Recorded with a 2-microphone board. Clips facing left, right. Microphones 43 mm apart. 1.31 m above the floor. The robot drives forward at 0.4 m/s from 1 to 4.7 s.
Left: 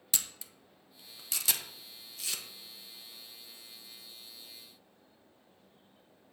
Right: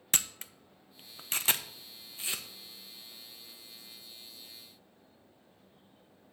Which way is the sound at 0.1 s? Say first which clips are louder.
Right 5 dB; 45° right (ahead or behind).